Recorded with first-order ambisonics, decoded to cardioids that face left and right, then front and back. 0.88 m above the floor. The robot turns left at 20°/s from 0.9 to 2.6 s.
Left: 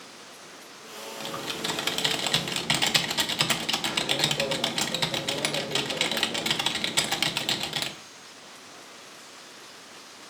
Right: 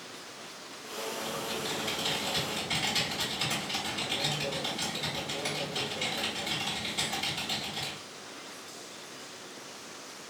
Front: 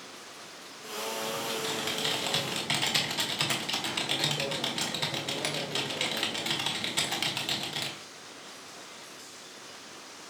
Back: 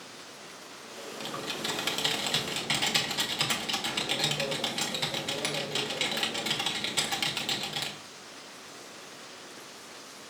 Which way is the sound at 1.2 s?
115° left.